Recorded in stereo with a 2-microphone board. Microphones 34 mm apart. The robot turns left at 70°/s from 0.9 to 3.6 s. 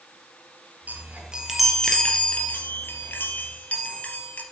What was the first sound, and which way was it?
A chime, 125° right.